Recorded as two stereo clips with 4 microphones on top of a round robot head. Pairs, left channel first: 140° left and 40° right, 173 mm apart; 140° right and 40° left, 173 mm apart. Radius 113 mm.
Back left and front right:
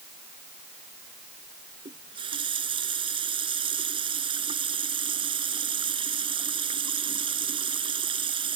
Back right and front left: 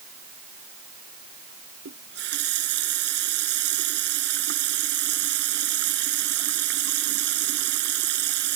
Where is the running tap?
20° left.